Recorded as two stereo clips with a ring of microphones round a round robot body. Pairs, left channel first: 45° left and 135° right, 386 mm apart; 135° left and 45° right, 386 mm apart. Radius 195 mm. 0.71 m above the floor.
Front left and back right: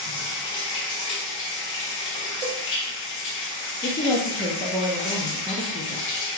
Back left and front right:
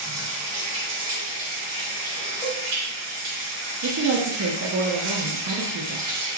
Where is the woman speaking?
30° right, 0.7 m.